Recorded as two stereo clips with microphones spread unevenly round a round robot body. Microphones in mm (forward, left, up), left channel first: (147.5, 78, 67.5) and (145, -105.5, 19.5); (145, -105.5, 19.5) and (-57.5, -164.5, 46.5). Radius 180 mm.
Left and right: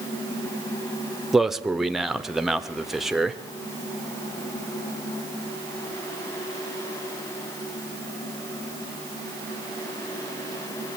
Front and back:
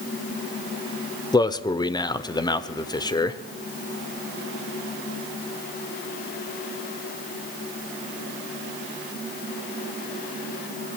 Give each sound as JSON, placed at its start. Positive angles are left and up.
{"t": 1.3, "sound": "a man speaking", "azimuth_deg": -25, "distance_m": 0.9}